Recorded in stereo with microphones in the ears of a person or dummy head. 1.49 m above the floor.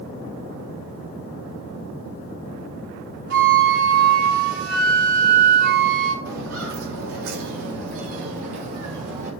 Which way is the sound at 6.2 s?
70° right (ahead or behind).